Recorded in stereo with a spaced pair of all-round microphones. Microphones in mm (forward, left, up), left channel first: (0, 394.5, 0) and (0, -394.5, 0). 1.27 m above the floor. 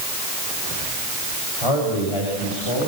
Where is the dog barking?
No dog barking in this recording.